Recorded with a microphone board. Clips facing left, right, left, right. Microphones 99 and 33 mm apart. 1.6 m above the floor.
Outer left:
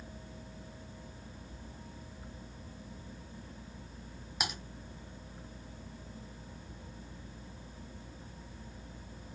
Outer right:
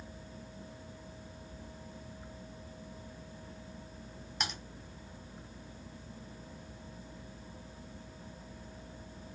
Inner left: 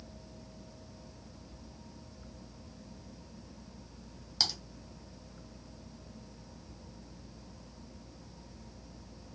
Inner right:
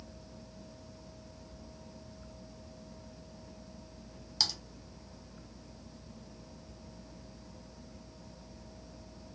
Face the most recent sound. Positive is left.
turn(degrees=10)  # may be behind; listen again after turning